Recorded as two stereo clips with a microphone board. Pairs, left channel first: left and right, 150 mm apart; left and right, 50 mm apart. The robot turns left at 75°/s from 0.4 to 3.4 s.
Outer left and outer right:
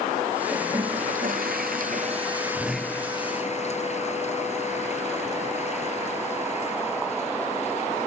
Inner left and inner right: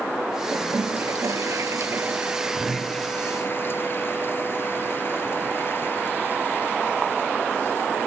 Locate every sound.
0.5 s a toilet flushing: 15° right (ahead or behind); by 8.1 s 50° left (ahead or behind)